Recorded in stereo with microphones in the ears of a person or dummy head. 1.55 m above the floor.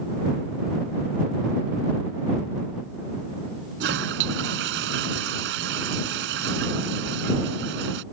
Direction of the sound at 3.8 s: 70° right (ahead or behind).